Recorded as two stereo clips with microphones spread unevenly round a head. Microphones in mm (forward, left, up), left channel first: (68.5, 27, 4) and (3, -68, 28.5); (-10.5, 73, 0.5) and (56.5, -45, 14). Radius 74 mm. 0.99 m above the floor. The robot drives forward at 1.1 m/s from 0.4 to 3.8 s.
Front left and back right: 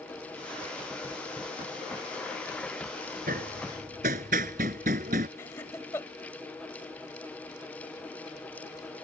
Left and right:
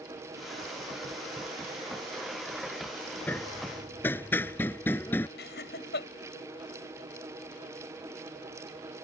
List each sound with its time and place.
3.3 s hammering: 160° right
5.4 s laughter: 130° left